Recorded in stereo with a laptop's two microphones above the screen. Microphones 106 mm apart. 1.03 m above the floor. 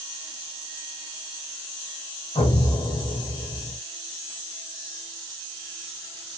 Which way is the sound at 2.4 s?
55° left (ahead or behind).